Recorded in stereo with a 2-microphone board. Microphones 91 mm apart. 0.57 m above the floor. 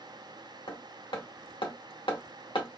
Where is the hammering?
70° left (ahead or behind), 1.6 m.